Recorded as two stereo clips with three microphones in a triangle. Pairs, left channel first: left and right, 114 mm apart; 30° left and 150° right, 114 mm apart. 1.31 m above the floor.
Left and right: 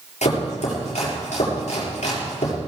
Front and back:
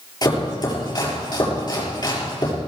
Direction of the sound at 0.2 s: 85° left.